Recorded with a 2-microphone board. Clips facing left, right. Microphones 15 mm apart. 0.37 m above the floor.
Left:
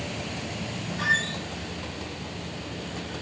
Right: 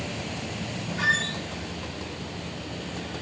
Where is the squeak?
35° right (ahead or behind), 0.9 m.